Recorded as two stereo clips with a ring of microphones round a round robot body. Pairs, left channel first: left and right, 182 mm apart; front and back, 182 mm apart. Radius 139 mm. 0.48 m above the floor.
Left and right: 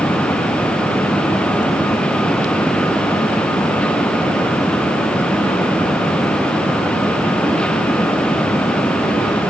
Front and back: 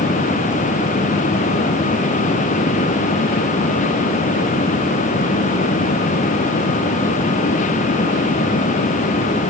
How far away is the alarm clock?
I don't hear an alarm clock.